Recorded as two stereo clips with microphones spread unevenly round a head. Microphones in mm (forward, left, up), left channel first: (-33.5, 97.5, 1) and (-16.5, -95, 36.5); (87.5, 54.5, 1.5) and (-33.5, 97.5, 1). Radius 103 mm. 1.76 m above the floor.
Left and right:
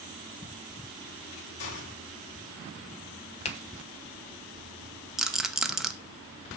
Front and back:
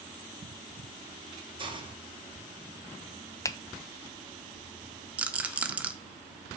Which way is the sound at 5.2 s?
135° right.